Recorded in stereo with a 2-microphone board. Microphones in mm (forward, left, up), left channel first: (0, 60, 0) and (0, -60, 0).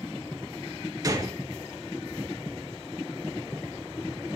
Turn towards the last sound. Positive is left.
turn(degrees=-30)  # may be behind; listen again after turning